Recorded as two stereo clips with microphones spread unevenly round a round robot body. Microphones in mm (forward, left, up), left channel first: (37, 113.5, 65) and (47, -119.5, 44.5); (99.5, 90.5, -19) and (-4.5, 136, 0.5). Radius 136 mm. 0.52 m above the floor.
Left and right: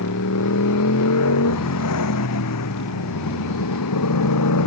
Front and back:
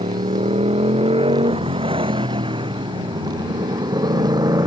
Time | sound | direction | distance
0.0 | a motorcycle | 125° left | ?